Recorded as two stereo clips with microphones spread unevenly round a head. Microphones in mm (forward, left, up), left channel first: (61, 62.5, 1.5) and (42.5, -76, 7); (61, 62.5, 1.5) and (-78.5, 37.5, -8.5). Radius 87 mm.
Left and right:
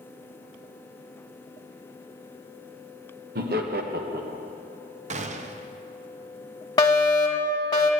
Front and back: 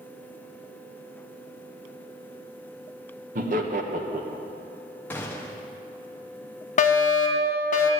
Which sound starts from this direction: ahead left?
A fire alarm, at 6.8 s.